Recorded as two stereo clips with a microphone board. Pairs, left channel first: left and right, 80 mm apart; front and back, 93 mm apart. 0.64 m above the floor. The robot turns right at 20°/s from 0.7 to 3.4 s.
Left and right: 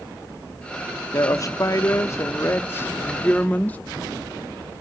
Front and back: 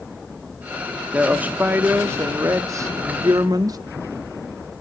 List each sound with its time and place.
1.1 s a woman speaking: 105° left, 0.8 m; by 3.8 s 150° left, 0.8 m